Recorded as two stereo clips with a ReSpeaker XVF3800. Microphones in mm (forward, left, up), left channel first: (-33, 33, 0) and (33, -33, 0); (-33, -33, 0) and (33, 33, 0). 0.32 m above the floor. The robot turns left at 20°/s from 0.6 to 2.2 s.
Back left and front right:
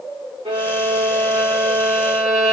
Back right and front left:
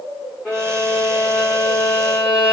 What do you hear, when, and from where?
0.5 s a violin: 60° right, 5 m; by 2.5 s 95° right, 5 m